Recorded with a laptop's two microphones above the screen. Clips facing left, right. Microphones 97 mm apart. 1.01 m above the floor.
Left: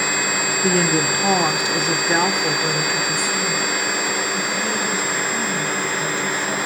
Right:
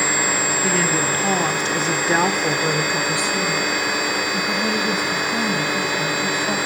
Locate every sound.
0.6 s a woman speaking: 40° left (ahead or behind), 2.5 m; by 6.6 s 45° right (ahead or behind), 6.5 m